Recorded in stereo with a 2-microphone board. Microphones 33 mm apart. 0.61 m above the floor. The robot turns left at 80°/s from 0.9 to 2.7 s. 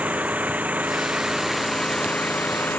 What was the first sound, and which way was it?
An engine running, 125° right.